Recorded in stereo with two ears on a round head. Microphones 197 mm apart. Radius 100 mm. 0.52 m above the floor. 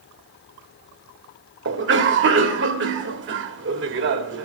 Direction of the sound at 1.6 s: 60° right (ahead or behind).